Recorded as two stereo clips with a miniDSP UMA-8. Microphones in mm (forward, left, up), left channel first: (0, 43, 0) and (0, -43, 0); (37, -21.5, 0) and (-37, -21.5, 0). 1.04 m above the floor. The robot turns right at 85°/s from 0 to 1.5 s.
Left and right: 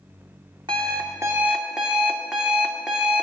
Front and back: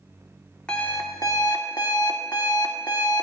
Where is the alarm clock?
80° right, 1.3 m; by 3.2 s 10° right, 1.3 m.